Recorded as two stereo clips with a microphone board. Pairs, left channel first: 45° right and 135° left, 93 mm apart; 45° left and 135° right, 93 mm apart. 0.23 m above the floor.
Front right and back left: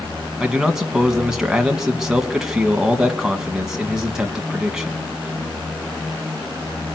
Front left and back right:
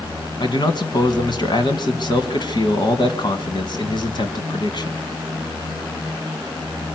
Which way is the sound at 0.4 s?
50° left.